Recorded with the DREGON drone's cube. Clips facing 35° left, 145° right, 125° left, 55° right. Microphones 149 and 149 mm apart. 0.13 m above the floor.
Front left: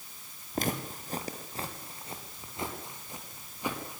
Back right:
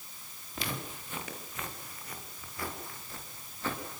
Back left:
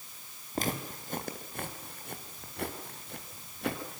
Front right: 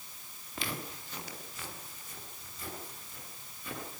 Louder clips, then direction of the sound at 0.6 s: Front left 6 dB, back left 6 dB; 80° left.